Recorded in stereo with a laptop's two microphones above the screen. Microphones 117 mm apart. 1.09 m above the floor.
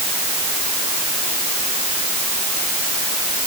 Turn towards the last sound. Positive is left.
No sound to turn to.